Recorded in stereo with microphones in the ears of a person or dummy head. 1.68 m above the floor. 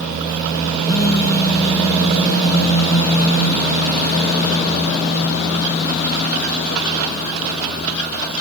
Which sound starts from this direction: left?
A phone buzzing, at 0.8 s.